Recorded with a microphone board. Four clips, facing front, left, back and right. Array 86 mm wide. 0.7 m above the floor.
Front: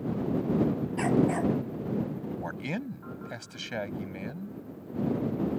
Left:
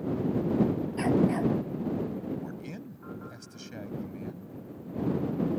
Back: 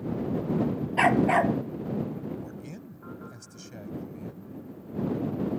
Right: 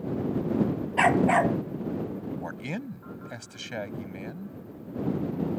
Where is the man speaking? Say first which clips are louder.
Right 4 dB, front 5 dB; 35° right.